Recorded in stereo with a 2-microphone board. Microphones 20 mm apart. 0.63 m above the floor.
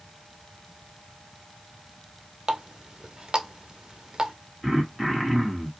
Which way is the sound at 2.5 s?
35° right (ahead or behind).